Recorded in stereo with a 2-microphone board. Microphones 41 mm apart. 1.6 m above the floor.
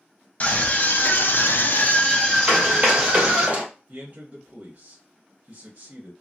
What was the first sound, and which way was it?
A scream, 40° left (ahead or behind).